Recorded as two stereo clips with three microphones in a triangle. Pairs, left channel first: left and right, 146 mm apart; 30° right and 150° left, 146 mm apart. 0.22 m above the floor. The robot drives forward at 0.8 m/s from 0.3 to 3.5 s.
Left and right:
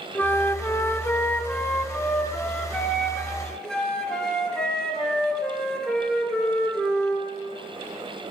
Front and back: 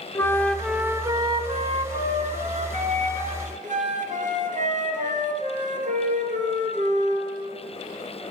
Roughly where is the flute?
Ahead left.